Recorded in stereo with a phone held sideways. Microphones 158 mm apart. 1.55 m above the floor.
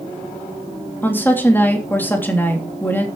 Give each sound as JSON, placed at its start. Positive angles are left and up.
{"t": 1.0, "sound": "a woman speaking", "side_deg": 15, "distance_m": 3.0}